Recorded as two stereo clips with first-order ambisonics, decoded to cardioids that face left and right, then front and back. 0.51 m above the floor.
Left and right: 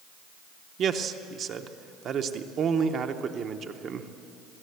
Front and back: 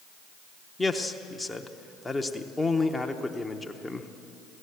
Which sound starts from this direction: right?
A man speaking, at 0.8 s.